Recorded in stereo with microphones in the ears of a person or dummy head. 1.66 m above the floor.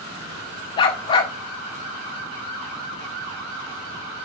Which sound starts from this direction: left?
A dog barking, at 0.8 s.